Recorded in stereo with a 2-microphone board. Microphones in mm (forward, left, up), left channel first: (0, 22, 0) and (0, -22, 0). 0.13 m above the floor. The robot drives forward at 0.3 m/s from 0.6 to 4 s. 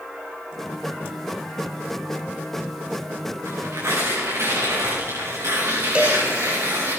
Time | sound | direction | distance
3.5 | tearing paper | 80° right | 7 m
6.0 | a cowbell | 25° right (ahead or behind) | 2.5 m